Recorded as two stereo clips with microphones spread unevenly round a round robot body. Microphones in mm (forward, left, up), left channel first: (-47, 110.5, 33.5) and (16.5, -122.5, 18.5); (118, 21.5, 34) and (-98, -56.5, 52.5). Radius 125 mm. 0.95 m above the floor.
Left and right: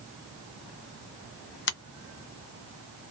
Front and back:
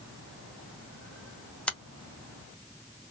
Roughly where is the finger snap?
Left.